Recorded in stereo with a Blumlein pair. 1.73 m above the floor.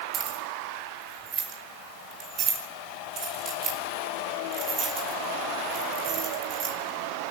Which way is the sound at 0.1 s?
30° right.